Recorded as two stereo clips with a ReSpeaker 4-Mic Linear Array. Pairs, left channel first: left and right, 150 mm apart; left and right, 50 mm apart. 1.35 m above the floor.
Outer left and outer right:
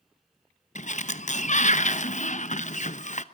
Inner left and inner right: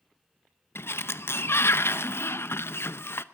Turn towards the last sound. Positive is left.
turn(degrees=55)  # may be behind; listen again after turning